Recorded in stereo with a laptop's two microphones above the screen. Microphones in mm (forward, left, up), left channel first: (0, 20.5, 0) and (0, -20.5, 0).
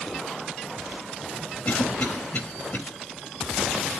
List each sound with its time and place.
1.6 s a cough: 60° left (ahead or behind), 5 m